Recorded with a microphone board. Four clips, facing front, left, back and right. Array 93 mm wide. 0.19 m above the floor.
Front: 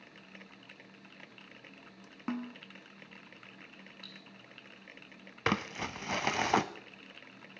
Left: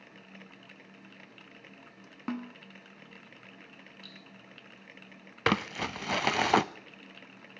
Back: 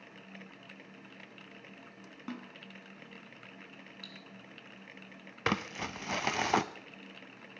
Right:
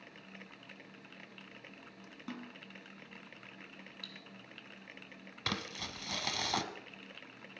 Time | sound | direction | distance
2.3 | a snare drum | 60° left | 1.8 m
4.0 | cutlery clinking | 120° right | 3.5 m
5.5 | crumpling | 85° left | 0.6 m